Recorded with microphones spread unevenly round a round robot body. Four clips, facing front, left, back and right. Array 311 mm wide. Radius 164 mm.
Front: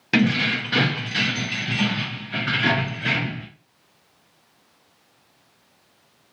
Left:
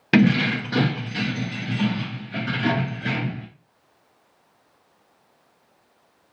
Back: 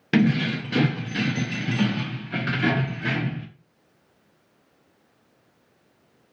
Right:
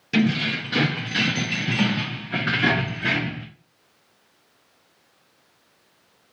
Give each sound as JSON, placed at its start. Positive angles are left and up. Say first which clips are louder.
{"t": 0.1, "sound": "keys jangling", "louder": "left 4 dB, even", "azimuth_deg": 105, "distance_m": 0.6}